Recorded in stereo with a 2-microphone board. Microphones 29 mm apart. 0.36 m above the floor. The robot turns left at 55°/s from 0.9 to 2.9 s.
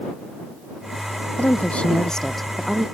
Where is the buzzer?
I don't hear a buzzer.